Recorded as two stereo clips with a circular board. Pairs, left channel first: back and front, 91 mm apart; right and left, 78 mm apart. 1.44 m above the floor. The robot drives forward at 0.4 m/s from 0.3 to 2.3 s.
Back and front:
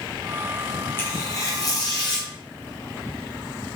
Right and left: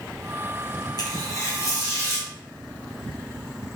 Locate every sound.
1.0 s tearing paper: 115° right, 0.6 m; by 2.3 s 145° right, 1.0 m